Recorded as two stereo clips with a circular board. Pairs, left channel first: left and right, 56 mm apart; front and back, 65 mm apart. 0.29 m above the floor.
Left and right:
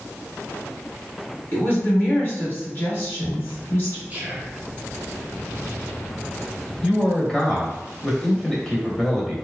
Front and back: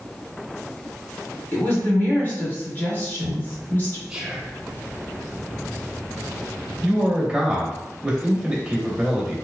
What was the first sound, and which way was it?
A woman speaking, 50° left.